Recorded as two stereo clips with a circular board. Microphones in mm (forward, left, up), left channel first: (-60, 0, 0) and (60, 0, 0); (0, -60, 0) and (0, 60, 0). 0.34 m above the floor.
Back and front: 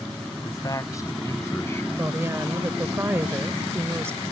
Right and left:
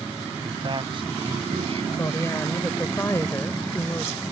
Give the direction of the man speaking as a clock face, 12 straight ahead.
8 o'clock.